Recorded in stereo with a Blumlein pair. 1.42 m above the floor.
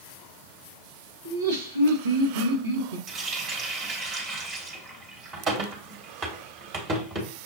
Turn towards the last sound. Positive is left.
turn(degrees=-30)